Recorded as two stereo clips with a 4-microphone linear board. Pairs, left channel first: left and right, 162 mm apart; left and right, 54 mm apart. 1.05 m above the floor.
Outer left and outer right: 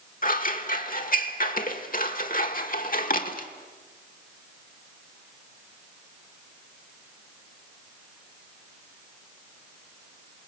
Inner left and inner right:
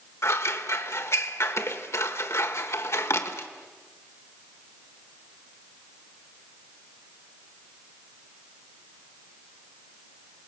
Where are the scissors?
60° left (ahead or behind), 1.3 m.